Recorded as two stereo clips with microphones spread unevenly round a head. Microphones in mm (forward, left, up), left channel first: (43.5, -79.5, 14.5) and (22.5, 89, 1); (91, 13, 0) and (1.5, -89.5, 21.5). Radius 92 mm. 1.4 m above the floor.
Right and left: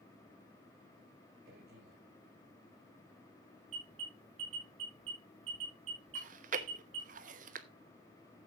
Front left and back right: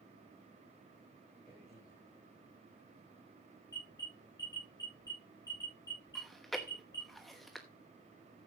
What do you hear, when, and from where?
1.4 s a man speaking: 150° left, 6.5 m
3.7 s an alarm: 120° left, 8.5 m
6.2 s chewing: 145° left, 1.0 m